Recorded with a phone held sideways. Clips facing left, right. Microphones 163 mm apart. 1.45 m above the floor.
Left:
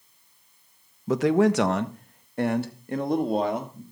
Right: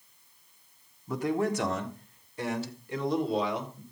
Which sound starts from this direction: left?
A man speaking, at 1.1 s.